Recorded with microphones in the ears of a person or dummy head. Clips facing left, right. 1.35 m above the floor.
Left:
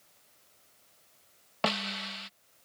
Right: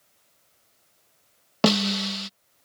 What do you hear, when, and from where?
1.6 s a snare drum: 65° right (ahead or behind)